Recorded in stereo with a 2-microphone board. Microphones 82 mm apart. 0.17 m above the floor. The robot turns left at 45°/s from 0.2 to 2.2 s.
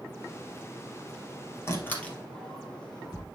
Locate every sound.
1.7 s a door slam: 35° left (ahead or behind), 2.5 m; by 3.2 s 10° left (ahead or behind), 2.5 m